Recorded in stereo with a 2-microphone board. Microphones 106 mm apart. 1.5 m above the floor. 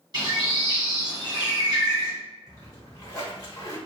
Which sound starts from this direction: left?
A splash, at 2.5 s.